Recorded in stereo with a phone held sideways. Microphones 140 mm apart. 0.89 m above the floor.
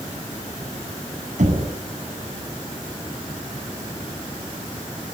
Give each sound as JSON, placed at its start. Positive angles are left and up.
{"t": 1.4, "sound": "knocking", "side_deg": -60, "distance_m": 7.5}